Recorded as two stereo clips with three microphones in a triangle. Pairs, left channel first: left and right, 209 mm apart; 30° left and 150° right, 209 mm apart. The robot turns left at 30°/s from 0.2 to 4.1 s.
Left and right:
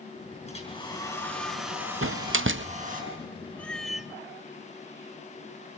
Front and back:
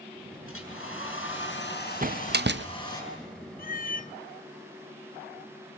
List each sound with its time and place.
0.5 s a hair dryer: 30° left, 6.5 m; by 3.0 s 45° right, 6.5 m
2.0 s a door slam: 100° right, 0.7 m; by 2.7 s 120° right, 0.7 m
3.6 s a cat meowing: 10° left, 0.6 m; by 4.1 s 5° right, 0.6 m